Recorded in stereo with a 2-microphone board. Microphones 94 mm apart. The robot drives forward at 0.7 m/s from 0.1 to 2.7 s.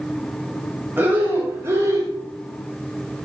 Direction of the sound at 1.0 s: 25° right (ahead or behind).